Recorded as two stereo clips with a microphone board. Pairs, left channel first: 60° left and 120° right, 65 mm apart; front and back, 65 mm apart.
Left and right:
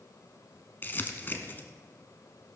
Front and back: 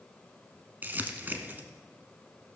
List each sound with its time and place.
0.8 s crumpling: 120° left, 1.0 m